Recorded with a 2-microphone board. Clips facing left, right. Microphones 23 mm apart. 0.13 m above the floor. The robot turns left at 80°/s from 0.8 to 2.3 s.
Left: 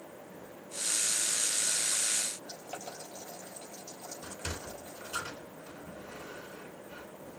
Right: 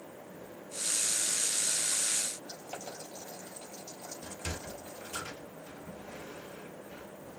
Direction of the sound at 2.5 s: 5° left (ahead or behind).